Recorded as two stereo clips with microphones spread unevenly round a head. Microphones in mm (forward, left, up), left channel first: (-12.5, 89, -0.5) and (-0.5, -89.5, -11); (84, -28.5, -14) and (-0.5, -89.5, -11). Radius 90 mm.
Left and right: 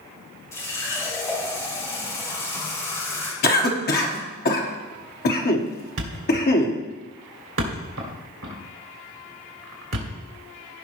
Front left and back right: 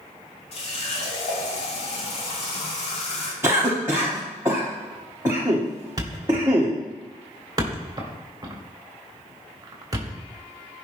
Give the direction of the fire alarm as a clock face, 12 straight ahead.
No fire alarm in this recording.